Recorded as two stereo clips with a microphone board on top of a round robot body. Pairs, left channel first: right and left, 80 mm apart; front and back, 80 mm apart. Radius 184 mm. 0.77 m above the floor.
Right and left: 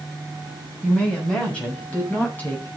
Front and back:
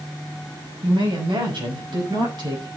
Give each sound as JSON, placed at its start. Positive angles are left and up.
{"t": 0.8, "sound": "a woman speaking", "azimuth_deg": -170, "distance_m": 6.0}